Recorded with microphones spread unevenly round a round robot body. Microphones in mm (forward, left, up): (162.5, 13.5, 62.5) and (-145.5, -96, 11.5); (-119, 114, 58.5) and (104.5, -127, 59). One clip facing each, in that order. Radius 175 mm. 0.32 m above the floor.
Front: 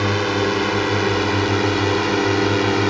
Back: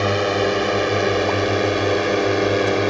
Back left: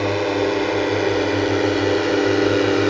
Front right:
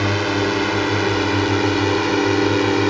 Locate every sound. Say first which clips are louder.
0.0 s a drone: back 1 dB, back left 1 dB; 45° right; by 2.9 s straight ahead